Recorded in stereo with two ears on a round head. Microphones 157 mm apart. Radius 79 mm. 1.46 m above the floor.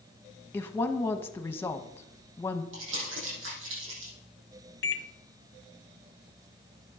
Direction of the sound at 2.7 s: 80° right.